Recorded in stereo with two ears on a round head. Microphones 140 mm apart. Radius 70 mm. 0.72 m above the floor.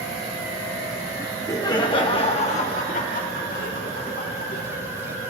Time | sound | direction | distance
1.2 | laughter | 10° left (ahead or behind) | 1.1 m